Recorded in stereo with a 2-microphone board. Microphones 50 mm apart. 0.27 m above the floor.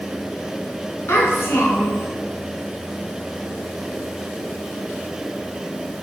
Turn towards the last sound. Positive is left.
turn(degrees=60)  # may be behind; listen again after turning